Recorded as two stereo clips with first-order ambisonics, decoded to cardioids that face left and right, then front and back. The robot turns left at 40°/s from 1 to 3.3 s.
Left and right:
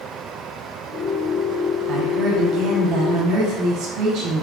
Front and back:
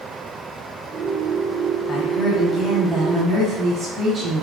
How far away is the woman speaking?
About 1.0 m.